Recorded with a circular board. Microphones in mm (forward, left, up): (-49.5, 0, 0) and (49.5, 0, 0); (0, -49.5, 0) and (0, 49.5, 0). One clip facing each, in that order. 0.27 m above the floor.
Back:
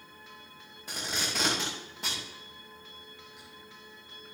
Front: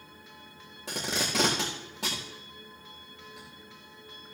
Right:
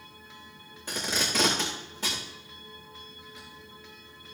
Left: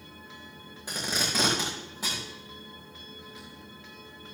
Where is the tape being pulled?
10° left, 4 m.